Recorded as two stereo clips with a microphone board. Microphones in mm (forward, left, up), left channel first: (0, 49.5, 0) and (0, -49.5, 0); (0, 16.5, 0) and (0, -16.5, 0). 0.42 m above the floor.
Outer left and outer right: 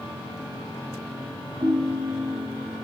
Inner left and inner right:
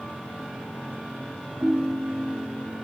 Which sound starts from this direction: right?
A ringtone, at 1.6 s.